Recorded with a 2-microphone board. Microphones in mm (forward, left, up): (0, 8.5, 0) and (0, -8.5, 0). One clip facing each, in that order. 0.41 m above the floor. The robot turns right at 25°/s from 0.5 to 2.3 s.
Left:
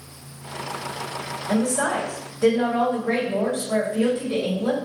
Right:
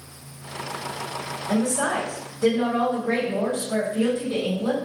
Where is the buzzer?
No buzzer in this recording.